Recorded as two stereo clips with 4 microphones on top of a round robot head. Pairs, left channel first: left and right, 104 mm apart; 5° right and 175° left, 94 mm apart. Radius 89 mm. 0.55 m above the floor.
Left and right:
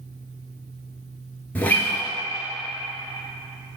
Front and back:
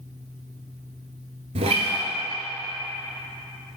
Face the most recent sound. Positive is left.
turn(degrees=165)